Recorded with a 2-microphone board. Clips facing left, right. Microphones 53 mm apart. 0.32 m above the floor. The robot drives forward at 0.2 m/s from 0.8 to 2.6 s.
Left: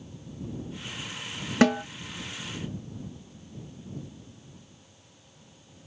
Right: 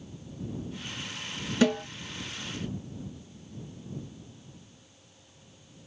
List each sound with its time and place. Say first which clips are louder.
1.6 s a snare drum: left 3 dB; 50° left (ahead or behind), 1.1 m